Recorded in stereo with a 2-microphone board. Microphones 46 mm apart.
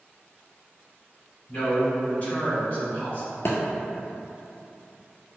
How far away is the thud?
About 0.6 m.